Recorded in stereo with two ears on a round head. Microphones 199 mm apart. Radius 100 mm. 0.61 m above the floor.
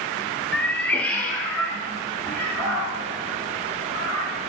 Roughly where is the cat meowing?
Centre.